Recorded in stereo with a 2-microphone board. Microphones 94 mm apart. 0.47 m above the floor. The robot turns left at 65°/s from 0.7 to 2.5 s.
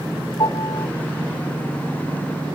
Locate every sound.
0.4 s a piano: 50° left (ahead or behind), 1.5 m